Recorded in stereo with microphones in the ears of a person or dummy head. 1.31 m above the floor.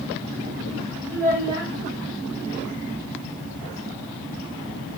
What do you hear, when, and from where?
1.1 s a child speaking: 35° right (ahead or behind), 2.5 m